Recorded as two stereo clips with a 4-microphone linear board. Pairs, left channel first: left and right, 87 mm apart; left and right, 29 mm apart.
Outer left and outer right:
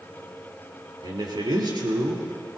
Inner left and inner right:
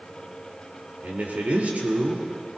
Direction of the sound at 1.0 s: 65° right (ahead or behind).